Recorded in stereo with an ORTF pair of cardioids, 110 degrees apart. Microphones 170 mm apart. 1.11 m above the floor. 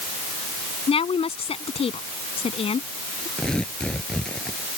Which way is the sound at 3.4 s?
5° left.